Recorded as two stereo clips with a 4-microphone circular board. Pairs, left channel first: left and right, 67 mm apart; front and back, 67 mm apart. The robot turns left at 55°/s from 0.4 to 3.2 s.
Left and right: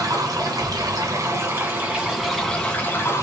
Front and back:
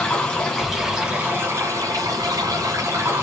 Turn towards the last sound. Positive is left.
turn(degrees=135)